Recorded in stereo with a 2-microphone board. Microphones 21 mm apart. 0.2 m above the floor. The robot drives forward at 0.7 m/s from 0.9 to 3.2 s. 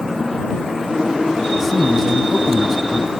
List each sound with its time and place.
1.6 s a man speaking: 5° right (ahead or behind), 1.5 m